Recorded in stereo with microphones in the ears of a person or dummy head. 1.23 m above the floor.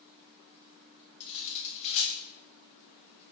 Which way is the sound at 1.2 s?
40° left (ahead or behind).